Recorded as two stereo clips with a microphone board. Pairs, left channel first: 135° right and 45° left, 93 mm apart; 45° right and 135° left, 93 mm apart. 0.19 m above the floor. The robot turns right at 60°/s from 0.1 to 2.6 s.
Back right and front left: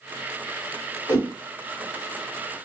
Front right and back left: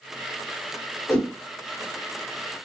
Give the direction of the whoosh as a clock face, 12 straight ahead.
3 o'clock.